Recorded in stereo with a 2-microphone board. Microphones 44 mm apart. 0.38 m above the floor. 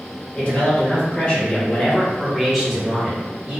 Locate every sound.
0.3 s a man speaking: 35° left (ahead or behind), 1.4 m; by 3.6 s 20° right (ahead or behind), 1.3 m